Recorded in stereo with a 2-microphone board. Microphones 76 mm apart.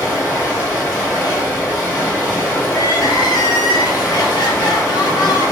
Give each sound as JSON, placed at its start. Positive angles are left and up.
{"t": 0.0, "sound": "running water", "side_deg": -20, "distance_m": 1.6}
{"t": 2.7, "sound": "crying", "side_deg": 65, "distance_m": 0.6}